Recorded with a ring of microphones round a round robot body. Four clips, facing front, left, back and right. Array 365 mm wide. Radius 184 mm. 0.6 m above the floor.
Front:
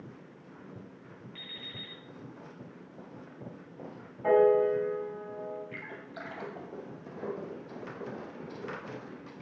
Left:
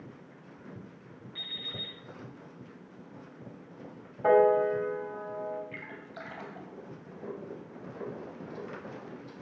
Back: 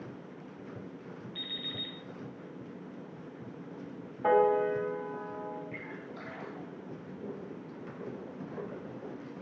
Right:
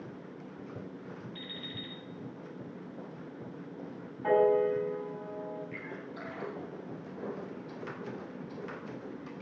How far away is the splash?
About 2.5 m.